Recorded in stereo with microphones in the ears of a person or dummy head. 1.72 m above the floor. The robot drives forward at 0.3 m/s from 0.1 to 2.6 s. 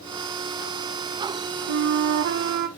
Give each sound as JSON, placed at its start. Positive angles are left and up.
{"t": 1.7, "sound": "a flute", "side_deg": -60, "distance_m": 1.0}